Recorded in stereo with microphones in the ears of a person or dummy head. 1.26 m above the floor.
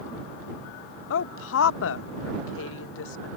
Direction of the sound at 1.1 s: 80° left.